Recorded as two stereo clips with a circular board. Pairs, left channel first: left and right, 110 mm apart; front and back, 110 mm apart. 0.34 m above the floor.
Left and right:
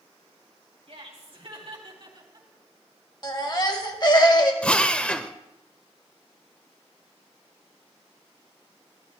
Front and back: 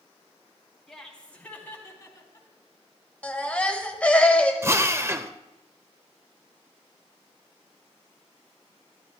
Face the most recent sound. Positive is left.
turn(degrees=155)